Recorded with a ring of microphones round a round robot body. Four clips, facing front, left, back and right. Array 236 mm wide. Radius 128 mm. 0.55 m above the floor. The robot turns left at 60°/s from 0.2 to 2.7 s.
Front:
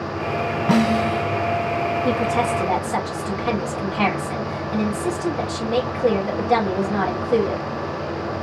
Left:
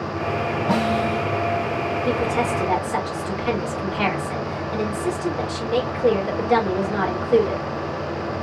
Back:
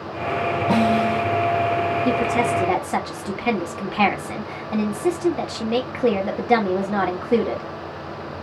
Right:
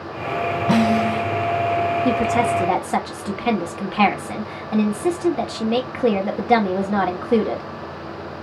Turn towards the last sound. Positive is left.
turn(degrees=-115)